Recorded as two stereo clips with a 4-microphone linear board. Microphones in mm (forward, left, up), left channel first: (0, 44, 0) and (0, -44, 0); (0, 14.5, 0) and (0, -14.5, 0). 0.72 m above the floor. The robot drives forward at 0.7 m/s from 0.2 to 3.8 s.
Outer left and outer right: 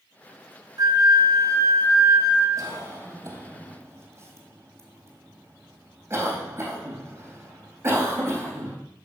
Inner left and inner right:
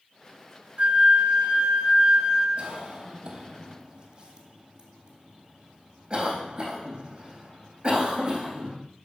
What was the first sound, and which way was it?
A flute, 45° right (ahead or behind).